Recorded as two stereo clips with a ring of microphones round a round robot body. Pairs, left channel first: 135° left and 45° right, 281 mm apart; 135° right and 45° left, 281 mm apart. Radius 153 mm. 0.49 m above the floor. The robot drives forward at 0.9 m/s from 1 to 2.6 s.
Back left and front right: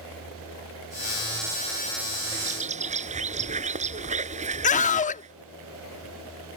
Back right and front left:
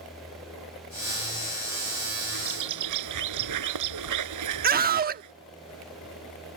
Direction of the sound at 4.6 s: 85° left.